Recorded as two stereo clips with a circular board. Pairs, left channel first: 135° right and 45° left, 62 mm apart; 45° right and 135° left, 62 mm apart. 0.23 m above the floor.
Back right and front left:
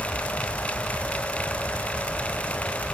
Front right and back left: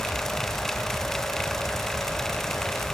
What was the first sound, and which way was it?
Only background noise.